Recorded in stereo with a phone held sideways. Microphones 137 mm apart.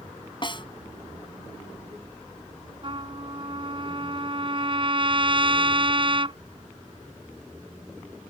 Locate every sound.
0.4 s a snare drum: 35° left (ahead or behind)
2.8 s a trumpet: 40° right (ahead or behind)